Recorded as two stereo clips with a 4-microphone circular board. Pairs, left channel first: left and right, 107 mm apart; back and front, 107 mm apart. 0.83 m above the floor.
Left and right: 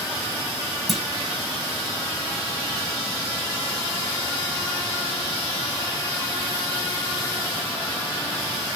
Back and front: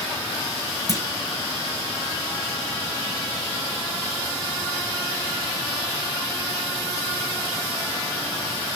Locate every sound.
0.9 s a clunk: straight behind, 0.7 m